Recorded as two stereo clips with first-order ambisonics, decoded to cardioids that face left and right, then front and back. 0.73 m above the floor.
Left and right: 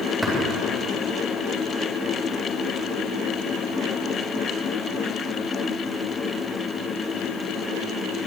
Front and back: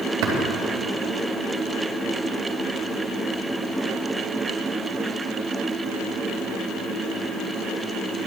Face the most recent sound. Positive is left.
turn(degrees=-165)